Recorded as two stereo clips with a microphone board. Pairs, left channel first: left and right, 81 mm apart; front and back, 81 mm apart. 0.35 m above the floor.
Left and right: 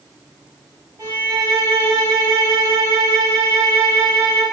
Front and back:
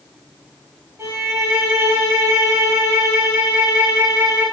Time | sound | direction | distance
1.0 | a violin | 125° right | 0.6 m